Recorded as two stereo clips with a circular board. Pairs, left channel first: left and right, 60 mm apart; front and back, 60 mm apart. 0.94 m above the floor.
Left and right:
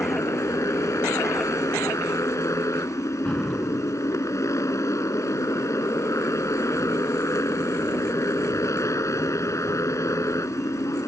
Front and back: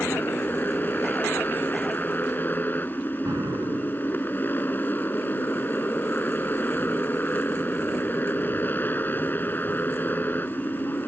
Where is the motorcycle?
60° left.